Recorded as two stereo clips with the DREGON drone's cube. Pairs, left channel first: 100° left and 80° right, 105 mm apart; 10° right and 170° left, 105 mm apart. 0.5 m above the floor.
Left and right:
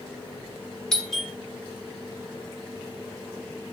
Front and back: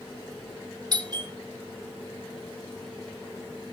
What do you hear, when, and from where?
0.9 s a doorbell: straight behind, 2 m